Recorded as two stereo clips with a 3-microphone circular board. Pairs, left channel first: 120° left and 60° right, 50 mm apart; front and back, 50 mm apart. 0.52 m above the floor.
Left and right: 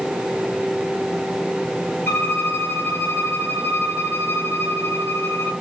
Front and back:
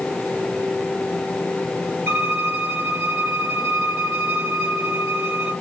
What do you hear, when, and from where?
2.1 s a violin: 145° left, 1.2 m